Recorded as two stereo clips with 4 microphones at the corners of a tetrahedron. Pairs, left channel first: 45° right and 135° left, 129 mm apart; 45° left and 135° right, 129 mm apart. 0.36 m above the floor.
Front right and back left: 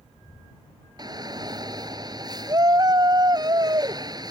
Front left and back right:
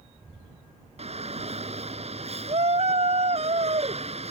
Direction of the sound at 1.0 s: 165° right.